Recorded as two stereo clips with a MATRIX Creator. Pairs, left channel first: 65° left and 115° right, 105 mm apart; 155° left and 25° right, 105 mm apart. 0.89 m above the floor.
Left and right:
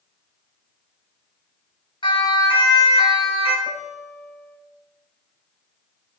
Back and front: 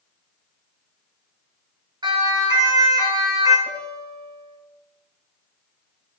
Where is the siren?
25° left, 6.5 m; by 3.6 s 35° left, 7.5 m.